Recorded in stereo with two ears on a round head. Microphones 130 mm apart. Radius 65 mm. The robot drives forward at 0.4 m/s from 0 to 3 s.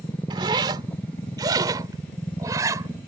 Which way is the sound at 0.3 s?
35° right (ahead or behind).